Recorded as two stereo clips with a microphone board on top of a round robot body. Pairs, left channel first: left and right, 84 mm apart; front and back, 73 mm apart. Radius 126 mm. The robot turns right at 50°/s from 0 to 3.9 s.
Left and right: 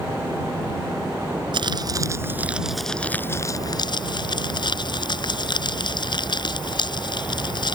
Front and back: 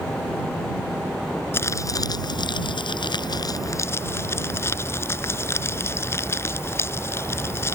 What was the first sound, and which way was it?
Crumpling, 60° right.